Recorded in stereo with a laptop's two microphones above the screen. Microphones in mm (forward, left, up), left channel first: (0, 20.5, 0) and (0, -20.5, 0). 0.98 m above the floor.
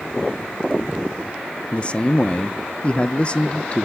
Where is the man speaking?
25° left (ahead or behind), 0.5 m.